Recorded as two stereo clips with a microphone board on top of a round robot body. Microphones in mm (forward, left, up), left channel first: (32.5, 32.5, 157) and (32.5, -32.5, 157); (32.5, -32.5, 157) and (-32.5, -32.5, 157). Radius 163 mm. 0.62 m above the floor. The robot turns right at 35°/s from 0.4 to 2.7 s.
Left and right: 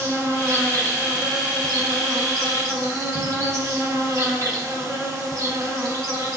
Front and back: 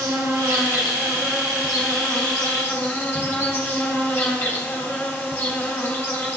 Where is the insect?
145° right, 2.5 m; by 6.4 s 65° right, 2.5 m.